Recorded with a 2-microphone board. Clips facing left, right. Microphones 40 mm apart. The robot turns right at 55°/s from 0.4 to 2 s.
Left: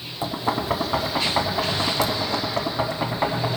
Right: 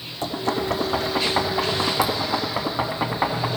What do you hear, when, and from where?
0.2 s knocking: 15° left (ahead or behind), 0.8 m; by 3.5 s 15° right (ahead or behind), 0.8 m